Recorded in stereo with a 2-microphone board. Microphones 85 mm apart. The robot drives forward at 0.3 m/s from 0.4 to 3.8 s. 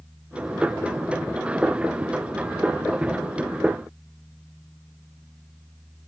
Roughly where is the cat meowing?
I don't hear a cat meowing.